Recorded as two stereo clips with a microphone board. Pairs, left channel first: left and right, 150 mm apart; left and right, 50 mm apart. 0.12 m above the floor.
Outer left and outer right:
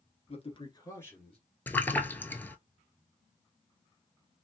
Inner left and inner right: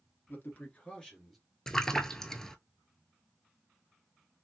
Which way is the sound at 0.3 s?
45° left (ahead or behind).